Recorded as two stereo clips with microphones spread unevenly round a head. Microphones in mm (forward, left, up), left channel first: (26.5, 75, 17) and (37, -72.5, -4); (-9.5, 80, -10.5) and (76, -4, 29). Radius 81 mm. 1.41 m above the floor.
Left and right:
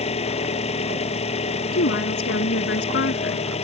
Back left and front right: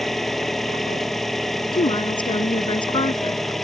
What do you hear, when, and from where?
0.0 s an engine running: 45° left
1.7 s a woman speaking: 85° left